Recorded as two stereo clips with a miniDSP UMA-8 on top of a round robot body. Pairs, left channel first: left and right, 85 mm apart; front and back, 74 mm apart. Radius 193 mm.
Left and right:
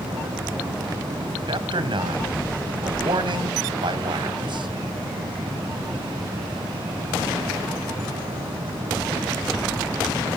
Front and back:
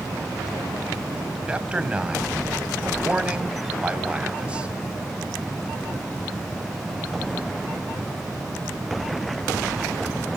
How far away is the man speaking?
About 3.5 m.